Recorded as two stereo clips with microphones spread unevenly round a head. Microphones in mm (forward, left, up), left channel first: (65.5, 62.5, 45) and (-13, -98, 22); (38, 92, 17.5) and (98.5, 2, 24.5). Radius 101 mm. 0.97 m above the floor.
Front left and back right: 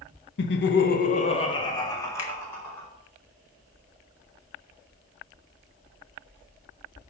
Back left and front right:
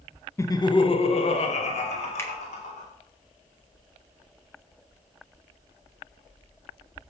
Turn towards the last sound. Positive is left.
turn(degrees=60)